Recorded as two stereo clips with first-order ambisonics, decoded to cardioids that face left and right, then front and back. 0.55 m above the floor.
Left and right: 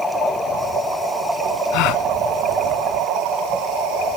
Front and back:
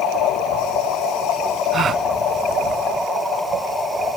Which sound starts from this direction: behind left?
A gasp, at 1.7 s.